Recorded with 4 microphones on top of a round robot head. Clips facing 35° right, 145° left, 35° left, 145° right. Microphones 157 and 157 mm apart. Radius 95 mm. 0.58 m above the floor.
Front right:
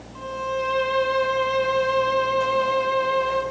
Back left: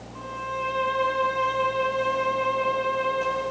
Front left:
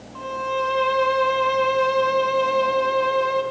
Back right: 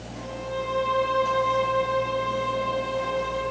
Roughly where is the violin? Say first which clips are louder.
Front right 6 dB, front left 5 dB; ahead.